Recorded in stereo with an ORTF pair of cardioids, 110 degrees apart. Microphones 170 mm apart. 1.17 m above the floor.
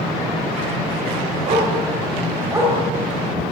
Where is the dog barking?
50° right, 2.5 m; by 2.8 s 15° right, 2.0 m.